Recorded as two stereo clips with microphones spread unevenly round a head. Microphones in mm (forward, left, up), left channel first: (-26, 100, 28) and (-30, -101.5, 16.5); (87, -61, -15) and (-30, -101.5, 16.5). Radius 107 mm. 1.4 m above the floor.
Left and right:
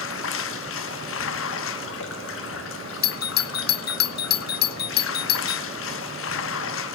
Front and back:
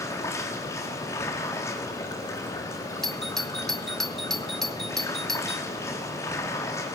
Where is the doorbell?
85° left, 0.6 m.